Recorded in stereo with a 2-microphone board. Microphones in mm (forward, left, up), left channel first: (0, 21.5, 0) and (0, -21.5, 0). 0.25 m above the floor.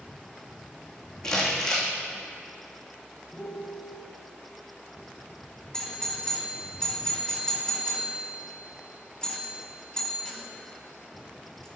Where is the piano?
10° left (ahead or behind), 1.4 m.